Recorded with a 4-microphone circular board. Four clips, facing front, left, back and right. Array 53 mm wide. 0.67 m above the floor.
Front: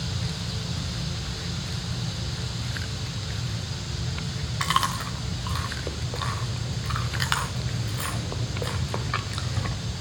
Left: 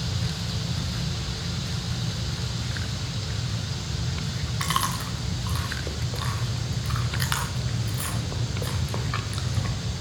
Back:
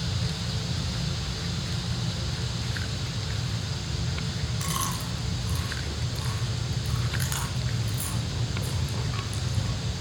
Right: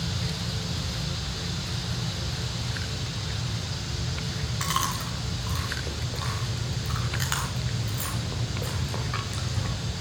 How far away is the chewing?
About 2.5 m.